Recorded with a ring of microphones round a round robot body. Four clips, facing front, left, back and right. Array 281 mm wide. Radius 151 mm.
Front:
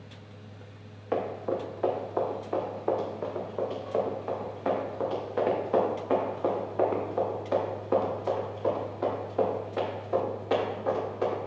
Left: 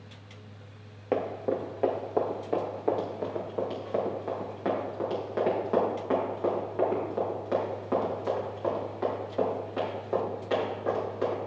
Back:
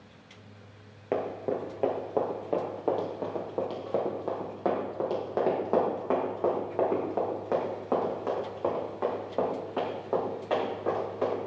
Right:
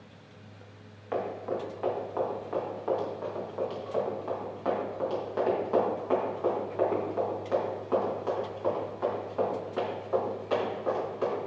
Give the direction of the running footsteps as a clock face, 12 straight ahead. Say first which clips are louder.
Left 3 dB, even; 8 o'clock.